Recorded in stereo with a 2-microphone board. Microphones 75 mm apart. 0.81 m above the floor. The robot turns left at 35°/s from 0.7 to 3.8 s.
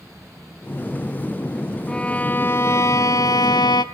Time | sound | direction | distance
1.9 | a violin | 170° left | 1.1 m